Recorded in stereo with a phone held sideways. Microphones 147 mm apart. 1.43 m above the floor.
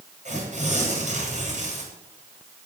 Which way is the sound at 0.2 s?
55° right (ahead or behind).